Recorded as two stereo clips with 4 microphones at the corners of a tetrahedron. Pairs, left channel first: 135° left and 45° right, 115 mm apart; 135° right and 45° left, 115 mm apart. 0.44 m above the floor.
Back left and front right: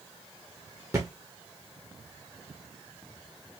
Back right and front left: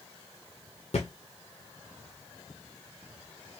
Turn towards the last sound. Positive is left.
turn(degrees=-110)